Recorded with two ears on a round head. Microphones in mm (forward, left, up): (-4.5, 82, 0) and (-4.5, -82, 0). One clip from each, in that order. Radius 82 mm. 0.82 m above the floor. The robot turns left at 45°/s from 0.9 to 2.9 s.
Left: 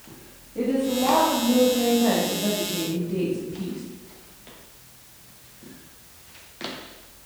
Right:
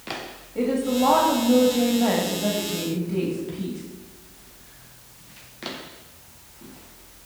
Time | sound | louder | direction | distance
0.6 | a woman speaking | right 1 dB | 80° right | 1.7 m